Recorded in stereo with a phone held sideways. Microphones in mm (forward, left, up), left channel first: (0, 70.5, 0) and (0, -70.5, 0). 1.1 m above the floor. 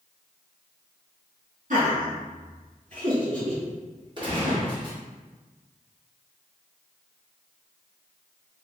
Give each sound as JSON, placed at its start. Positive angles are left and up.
{"t": 1.7, "sound": "laughter", "side_deg": -65, "distance_m": 1.6}
{"t": 4.2, "sound": "a gunshot", "side_deg": -35, "distance_m": 1.2}